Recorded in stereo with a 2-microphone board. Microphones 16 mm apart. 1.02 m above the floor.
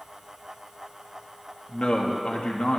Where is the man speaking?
75° left (ahead or behind), 1.8 m.